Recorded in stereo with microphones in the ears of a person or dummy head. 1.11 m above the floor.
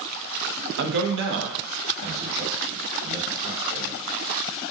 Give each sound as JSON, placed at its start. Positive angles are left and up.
{"t": 0.8, "sound": "a man speaking", "side_deg": -70, "distance_m": 0.7}